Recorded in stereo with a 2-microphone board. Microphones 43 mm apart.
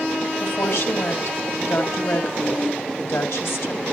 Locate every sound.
0.4 s a woman speaking: 70° left (ahead or behind), 3 m